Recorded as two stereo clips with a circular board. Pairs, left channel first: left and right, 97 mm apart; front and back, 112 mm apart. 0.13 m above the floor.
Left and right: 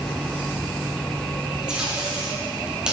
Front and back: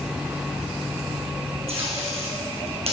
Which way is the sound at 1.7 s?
170° right.